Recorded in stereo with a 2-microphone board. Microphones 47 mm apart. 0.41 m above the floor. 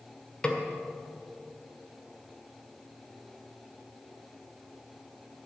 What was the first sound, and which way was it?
A snare drum, 25° left (ahead or behind).